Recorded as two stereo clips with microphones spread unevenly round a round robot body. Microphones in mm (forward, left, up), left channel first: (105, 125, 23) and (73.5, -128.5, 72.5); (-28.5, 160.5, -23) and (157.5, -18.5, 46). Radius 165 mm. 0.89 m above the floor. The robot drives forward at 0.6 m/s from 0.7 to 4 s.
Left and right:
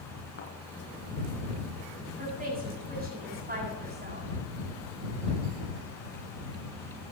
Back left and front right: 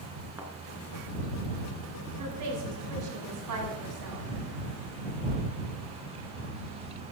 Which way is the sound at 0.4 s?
35° left.